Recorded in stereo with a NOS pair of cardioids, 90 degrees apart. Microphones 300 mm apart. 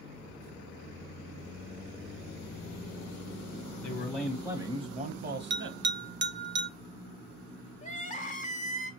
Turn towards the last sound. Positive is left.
turn(degrees=25)